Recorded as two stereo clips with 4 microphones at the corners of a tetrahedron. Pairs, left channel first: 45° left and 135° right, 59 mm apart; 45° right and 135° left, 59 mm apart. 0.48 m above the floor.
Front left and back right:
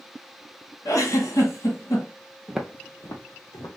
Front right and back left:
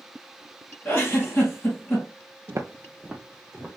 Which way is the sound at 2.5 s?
155° left.